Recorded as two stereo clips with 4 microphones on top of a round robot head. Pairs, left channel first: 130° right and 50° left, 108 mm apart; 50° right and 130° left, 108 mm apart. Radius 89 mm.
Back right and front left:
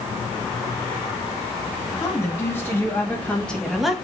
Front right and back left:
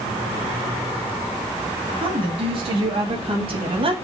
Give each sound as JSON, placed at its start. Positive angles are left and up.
{"t": 2.0, "sound": "a woman speaking", "azimuth_deg": 165, "distance_m": 2.5}